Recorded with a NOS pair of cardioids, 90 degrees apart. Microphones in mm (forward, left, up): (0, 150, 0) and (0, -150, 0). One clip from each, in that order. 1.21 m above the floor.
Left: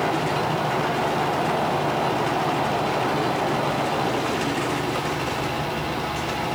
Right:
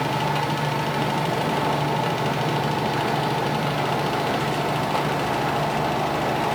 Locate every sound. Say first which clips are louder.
0.0 s a fan: left 1 dB; 70° right, 2 m